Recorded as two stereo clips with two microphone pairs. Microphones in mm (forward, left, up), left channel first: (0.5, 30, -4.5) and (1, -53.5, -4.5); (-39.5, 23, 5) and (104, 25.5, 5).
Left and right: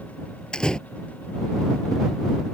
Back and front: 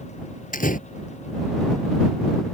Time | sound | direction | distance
0.5 | a door slam | 170° left | ?